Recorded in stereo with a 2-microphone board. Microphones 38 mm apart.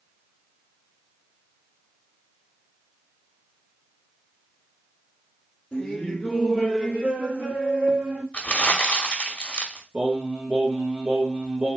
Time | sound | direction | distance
5.7 | laughter | 20° left (ahead or behind) | 1.4 m
8.3 | crumpling | 30° left (ahead or behind) | 0.8 m
9.9 | singing | 85° right | 2 m